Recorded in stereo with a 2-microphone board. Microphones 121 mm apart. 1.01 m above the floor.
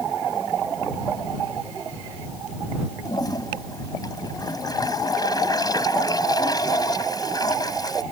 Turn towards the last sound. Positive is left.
turn(degrees=35)  # may be behind; listen again after turning